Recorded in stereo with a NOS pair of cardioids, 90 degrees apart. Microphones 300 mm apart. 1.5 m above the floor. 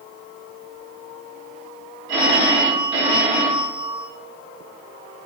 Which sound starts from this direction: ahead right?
A phone ringing, at 2.1 s.